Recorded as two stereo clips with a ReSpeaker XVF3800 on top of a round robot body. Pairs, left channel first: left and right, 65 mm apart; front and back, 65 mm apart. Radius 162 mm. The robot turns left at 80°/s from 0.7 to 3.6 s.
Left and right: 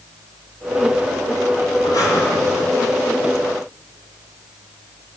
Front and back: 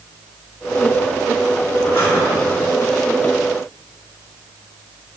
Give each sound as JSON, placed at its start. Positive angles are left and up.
{"t": 1.8, "sound": "breathing", "azimuth_deg": 70, "distance_m": 2.0}